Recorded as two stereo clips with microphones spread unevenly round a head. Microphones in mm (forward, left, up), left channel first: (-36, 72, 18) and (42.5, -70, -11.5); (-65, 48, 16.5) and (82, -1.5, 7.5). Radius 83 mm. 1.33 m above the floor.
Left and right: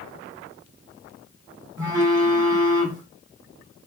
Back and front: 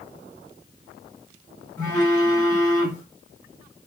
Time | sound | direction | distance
1.8 | a phone buzzing | 130° right | 1.5 m